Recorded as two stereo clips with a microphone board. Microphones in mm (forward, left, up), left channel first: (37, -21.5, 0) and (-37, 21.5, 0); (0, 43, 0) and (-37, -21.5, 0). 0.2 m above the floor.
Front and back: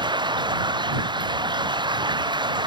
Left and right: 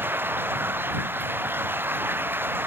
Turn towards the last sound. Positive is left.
turn(degrees=180)